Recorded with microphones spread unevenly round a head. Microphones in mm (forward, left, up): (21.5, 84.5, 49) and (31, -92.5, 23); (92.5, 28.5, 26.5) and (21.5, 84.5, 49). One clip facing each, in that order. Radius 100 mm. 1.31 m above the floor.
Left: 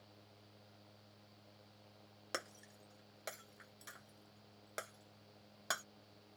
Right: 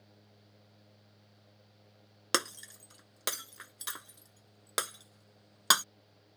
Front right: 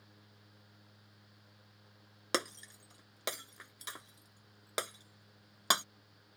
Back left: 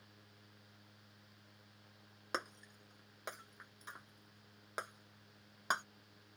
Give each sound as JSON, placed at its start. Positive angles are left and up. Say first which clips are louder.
{"t": 2.3, "sound": "breaking glass", "louder": "right 11 dB, front right 6 dB", "azimuth_deg": -95}